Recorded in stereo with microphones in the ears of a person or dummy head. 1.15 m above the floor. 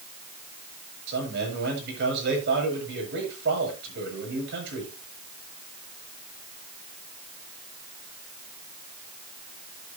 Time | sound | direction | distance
1.1 | a man speaking | 55° right (ahead or behind) | 7.5 m